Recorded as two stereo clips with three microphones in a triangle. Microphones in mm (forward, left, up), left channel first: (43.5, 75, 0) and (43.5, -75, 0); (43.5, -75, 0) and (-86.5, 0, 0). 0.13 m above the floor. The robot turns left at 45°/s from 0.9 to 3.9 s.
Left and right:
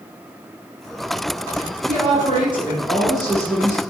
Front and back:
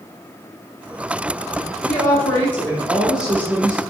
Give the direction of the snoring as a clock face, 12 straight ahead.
No snoring in this recording.